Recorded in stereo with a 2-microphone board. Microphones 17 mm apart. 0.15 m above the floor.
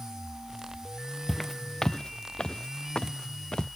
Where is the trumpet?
I don't hear a trumpet.